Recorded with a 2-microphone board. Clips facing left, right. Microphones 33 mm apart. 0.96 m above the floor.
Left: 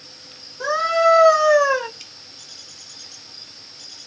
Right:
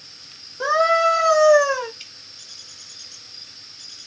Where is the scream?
15° right (ahead or behind), 0.9 m; by 1.9 s 30° left (ahead or behind), 1.2 m.